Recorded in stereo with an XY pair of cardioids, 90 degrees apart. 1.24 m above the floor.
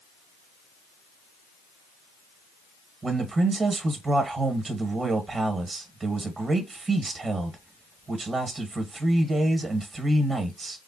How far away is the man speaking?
About 1.0 m.